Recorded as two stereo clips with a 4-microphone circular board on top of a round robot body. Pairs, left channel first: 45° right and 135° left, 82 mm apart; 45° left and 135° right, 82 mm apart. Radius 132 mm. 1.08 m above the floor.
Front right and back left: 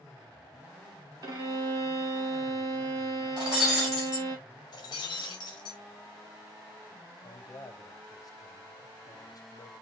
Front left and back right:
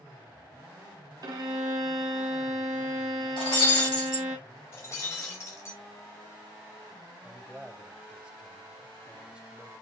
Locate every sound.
1.2 s a violin: straight behind, 0.5 m
3.4 s breaking glass: 45° left, 2.5 m
4.7 s breaking glass: 10° right, 0.8 m
7.2 s a man speaking: 60° right, 0.9 m